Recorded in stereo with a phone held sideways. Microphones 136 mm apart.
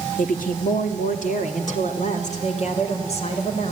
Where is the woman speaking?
75° left (ahead or behind), 2.0 m; by 3.7 s 50° left (ahead or behind), 5 m.